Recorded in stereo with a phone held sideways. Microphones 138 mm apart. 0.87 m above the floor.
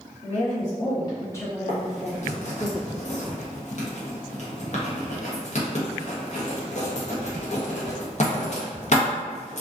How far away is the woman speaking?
About 0.9 m.